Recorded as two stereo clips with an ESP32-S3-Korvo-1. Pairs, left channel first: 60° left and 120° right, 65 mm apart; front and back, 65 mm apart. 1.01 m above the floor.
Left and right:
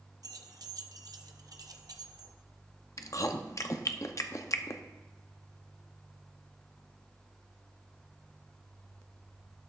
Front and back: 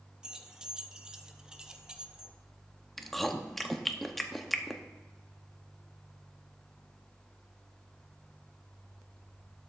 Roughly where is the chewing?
Left.